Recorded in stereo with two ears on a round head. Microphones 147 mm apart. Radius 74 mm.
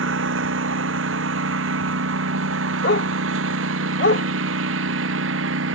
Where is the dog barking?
65° left (ahead or behind).